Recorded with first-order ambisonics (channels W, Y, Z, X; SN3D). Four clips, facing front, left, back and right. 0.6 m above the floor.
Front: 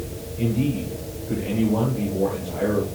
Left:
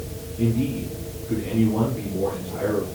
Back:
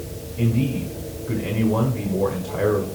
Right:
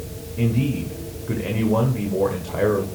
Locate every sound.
0.4 s a man speaking: 115° right, 1.8 m